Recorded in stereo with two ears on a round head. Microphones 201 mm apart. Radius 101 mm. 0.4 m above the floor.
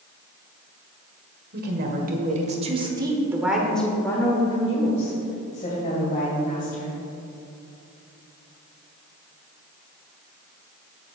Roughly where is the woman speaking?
Right.